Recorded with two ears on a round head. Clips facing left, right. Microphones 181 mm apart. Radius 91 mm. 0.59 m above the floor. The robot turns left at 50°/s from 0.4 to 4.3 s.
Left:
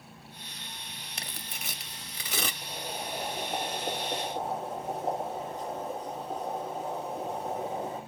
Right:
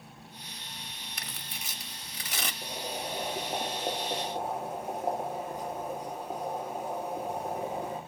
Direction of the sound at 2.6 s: 85° right.